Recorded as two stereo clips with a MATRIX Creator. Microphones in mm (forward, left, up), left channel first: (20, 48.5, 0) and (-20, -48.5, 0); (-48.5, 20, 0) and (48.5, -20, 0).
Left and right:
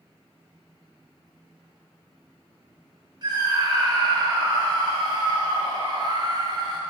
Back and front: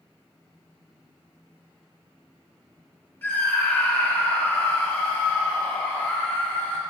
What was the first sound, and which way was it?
A scream, 135° right.